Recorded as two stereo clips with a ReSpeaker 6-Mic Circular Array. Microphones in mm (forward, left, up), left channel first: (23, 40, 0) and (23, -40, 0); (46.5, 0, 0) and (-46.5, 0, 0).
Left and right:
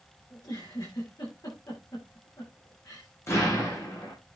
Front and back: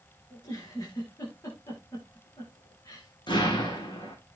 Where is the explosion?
35° left, 8.5 m.